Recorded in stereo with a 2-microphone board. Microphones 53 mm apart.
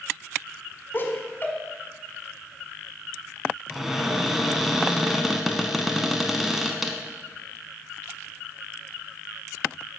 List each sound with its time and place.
0.9 s laughter: 35° left (ahead or behind), 1.5 m
3.7 s a cupboard door: 5° right (ahead or behind), 0.8 m